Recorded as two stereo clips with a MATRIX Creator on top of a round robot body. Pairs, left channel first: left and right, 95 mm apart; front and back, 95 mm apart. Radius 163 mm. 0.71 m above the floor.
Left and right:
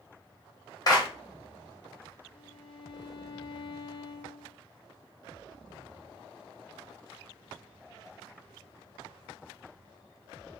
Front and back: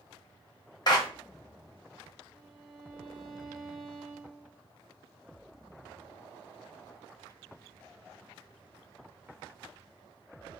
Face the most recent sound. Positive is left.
turn(degrees=85)